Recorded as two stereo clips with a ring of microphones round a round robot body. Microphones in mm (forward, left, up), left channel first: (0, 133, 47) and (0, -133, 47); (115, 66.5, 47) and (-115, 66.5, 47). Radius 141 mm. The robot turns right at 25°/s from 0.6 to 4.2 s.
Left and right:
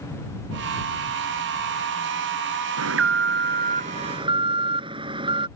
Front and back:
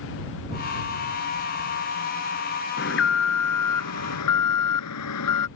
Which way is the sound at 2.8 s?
55° right.